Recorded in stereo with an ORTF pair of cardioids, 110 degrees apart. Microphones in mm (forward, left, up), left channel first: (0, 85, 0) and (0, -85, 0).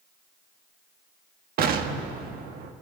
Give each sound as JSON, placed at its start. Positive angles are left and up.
{"t": 1.6, "sound": "an explosion", "azimuth_deg": -60, "distance_m": 1.5}